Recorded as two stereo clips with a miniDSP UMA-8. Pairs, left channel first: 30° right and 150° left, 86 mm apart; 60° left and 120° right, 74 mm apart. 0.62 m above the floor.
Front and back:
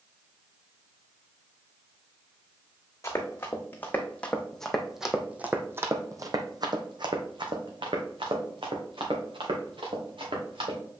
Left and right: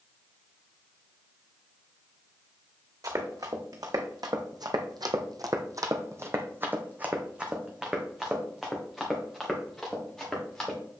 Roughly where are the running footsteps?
Right.